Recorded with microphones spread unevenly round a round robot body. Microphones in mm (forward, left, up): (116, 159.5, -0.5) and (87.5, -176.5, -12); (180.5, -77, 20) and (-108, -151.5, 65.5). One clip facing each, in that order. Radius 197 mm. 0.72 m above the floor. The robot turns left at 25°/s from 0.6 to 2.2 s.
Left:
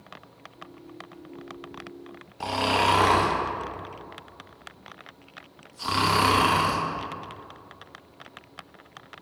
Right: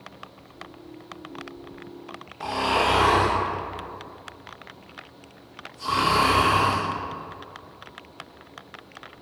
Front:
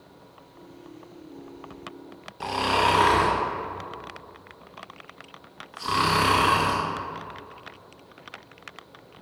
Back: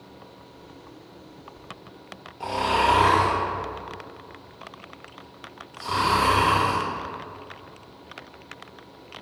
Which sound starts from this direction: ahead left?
Snoring, at 2.4 s.